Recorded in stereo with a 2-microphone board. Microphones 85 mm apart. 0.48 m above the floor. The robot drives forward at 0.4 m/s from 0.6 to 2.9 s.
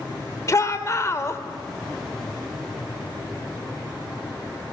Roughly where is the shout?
Left.